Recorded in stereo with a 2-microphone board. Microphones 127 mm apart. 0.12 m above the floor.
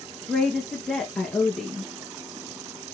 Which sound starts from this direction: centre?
A woman speaking, at 0.3 s.